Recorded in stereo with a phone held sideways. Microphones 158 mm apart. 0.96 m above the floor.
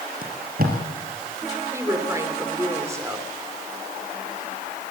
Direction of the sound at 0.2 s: 70° right (ahead or behind).